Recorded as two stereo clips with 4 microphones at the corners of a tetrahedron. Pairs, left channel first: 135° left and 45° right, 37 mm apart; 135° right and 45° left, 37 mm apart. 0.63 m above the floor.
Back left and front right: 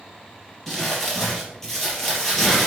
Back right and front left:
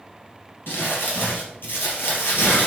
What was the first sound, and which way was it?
Crumpling, 145° right.